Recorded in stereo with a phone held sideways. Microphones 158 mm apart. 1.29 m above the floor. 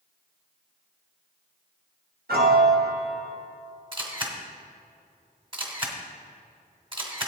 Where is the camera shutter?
35° right (ahead or behind), 1.4 m.